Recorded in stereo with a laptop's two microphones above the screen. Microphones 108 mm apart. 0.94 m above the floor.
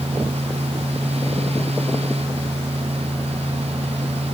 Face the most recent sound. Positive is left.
turn(degrees=-70)  # may be behind; listen again after turning